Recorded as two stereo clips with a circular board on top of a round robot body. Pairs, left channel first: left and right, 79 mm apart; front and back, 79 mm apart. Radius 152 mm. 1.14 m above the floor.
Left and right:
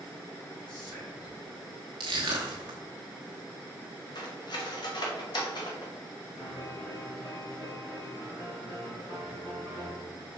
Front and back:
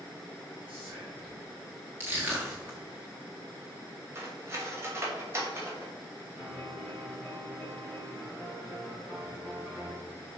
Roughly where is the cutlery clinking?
Behind left.